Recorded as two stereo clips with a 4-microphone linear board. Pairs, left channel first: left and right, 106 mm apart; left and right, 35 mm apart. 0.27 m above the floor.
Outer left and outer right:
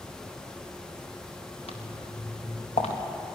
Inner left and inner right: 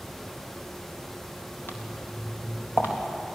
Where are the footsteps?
75° left (ahead or behind), 3.5 m; by 2.9 s 85° left, 3.5 m.